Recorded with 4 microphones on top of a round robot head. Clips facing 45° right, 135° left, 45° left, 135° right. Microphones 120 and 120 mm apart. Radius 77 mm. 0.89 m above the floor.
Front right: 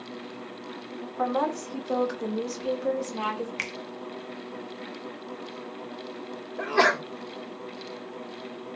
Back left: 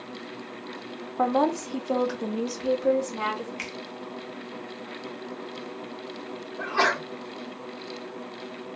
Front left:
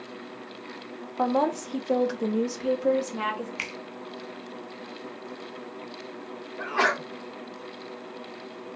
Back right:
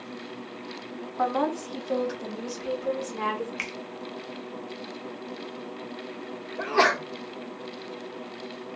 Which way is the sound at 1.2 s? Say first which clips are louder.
Back left 4 dB, front left 2 dB; 105° left.